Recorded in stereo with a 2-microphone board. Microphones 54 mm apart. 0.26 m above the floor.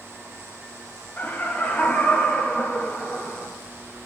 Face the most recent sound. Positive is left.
turn(degrees=35)  # may be behind; listen again after turning